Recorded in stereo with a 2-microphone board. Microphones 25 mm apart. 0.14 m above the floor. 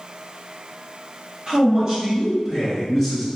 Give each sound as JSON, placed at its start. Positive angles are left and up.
{"t": 1.5, "sound": "a man speaking", "side_deg": -30, "distance_m": 1.7}